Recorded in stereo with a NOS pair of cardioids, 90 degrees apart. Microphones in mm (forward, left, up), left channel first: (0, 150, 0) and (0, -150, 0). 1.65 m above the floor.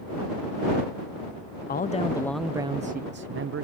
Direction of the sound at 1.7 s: 30° left.